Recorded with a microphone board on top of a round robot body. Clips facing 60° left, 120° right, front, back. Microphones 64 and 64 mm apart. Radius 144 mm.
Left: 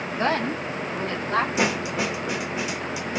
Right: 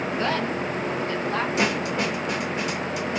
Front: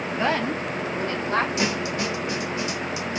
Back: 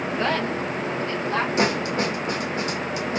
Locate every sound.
0.2 s a woman speaking: 70° left, 0.9 m; by 1.5 s 45° left, 1.8 m
1.6 s a snare drum: 145° left, 0.9 m